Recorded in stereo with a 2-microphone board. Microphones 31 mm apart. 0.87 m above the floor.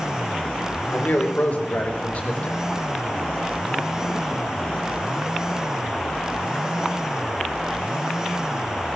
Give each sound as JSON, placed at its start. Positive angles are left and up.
{"t": 0.9, "sound": "a man speaking", "side_deg": 55, "distance_m": 2.5}